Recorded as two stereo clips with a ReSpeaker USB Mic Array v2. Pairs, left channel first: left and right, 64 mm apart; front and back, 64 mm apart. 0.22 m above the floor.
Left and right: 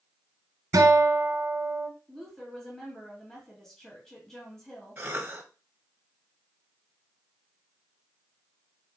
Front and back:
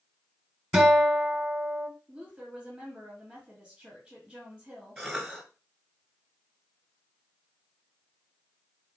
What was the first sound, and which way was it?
A guitar, 105° right.